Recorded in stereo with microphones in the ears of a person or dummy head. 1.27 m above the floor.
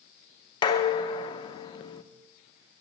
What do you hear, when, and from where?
0.6 s dishes clattering: 20° left (ahead or behind), 0.6 m